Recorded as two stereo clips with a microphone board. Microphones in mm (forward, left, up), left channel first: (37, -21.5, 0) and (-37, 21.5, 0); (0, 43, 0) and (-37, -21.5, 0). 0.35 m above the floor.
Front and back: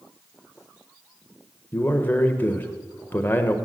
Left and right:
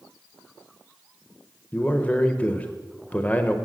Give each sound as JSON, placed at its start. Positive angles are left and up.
{"t": 1.7, "sound": "a man speaking", "azimuth_deg": 10, "distance_m": 0.9}